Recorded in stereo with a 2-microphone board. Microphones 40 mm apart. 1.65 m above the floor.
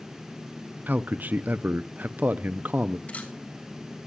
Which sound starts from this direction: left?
A camera shutter, at 3.1 s.